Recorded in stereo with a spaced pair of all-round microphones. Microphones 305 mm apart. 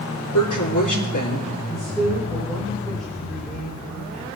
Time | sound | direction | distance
0.3 | a woman speaking | 85° left | 4.5 m
1.7 | a man speaking | centre (ahead or behind) | 5.5 m